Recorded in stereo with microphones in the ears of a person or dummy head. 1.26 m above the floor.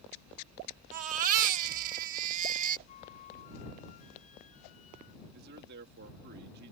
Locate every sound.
0.9 s a baby crying: 45° right (ahead or behind)
2.9 s a flute: 40° left (ahead or behind)
5.2 s a man speaking: 60° right (ahead or behind)